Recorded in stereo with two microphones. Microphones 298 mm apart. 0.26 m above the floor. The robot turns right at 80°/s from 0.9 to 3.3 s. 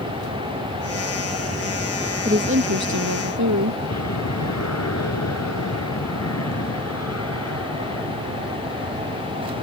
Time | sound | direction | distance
0.0 | an aircraft | 65° right (ahead or behind) | ?
2.2 | a woman speaking | 155° right | ?